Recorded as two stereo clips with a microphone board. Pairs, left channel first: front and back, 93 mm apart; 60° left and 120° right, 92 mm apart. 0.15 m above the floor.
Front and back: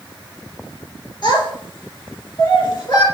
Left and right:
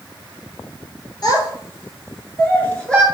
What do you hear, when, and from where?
1.2 s a child speaking: 20° left, 1.9 m; by 3.0 s 25° right, 1.5 m